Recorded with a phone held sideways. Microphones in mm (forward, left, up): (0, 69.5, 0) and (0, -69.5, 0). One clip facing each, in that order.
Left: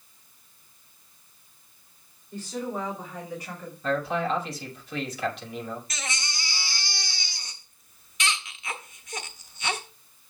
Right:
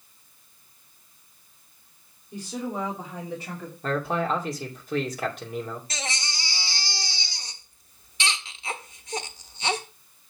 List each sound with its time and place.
2.3 s a woman speaking: 15° right (ahead or behind), 2.5 m; by 3.7 s 30° right (ahead or behind), 2 m
3.8 s a man speaking: 45° right (ahead or behind), 2.5 m
5.9 s a baby crying: 30° right (ahead or behind), 1.2 m